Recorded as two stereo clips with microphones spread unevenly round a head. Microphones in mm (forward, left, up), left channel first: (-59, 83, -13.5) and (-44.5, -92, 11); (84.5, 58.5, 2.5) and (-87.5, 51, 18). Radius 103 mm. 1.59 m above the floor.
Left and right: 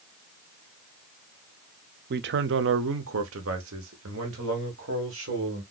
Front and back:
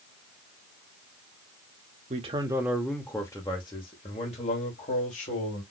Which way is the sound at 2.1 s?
120° right.